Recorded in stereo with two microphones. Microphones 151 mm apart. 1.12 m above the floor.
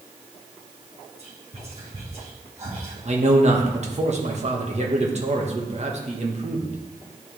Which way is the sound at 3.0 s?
45° right (ahead or behind).